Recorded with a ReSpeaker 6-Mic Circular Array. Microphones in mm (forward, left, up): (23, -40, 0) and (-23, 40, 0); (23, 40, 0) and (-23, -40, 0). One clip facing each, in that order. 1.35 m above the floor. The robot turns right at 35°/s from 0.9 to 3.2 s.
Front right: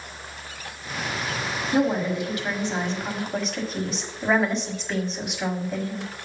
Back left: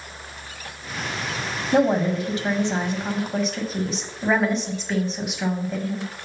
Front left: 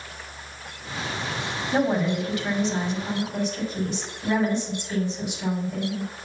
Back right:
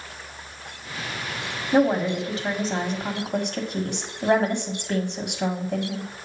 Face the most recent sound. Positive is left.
turn(degrees=-150)